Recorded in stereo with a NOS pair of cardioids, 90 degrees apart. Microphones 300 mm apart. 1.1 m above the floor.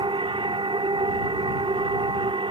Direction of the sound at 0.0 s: 15° right.